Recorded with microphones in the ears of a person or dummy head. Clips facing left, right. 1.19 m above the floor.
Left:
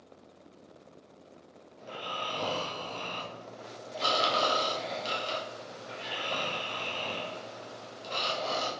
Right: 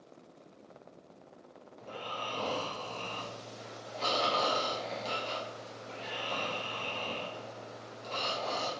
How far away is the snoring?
About 0.8 m.